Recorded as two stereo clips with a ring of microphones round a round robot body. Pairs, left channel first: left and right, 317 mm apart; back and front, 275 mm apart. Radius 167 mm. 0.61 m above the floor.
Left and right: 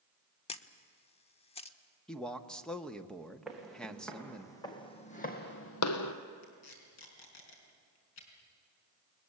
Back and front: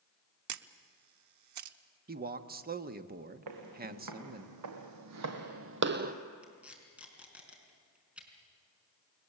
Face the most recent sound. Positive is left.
turn(degrees=85)